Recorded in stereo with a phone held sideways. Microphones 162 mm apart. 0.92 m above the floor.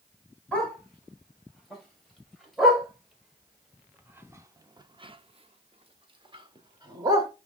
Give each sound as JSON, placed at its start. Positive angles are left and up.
{"t": 0.5, "sound": "a dog barking", "side_deg": 5, "distance_m": 2.5}